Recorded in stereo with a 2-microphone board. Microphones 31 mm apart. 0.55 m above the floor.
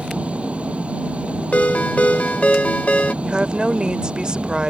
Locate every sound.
0.0 s an engine running: 40° right (ahead or behind)
1.5 s a ringtone: 50° left (ahead or behind)
3.2 s a woman speaking: 30° right (ahead or behind)